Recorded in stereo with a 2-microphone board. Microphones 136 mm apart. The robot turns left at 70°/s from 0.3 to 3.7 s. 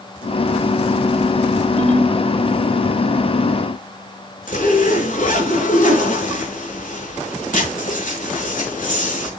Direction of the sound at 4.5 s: 80° left.